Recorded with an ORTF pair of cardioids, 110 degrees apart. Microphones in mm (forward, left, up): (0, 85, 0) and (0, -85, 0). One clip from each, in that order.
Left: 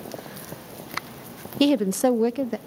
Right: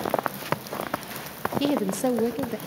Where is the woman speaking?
45° left, 0.6 m.